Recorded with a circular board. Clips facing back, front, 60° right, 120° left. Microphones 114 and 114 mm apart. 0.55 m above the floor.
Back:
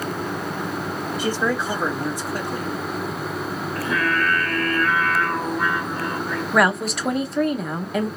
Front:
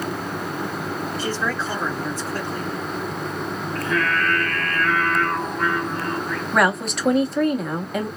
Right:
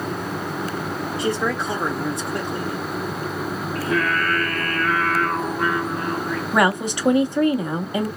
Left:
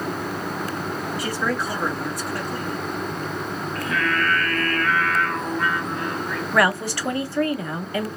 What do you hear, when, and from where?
1.2 s a man speaking: 110° right, 1.1 m
3.8 s singing: 105° right, 0.9 m
6.5 s a woman speaking: 90° right, 0.6 m